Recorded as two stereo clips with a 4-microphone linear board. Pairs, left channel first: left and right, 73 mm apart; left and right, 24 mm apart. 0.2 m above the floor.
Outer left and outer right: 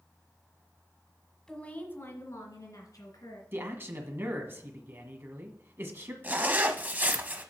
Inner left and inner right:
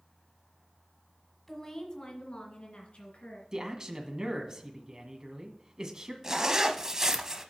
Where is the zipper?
25° right (ahead or behind), 0.8 m.